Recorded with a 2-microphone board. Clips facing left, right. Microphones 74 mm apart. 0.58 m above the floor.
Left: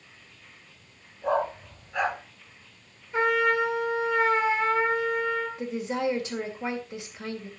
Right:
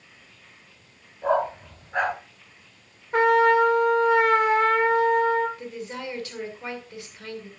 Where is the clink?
No clink in this recording.